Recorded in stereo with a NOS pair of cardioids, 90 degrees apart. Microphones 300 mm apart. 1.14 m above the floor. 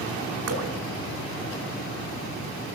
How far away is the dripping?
About 4 m.